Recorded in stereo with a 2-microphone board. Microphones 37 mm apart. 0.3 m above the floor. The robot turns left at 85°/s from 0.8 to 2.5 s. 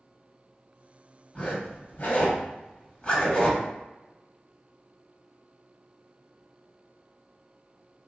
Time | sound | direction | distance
1.4 | a zipper | 30° left (ahead or behind) | 1.5 m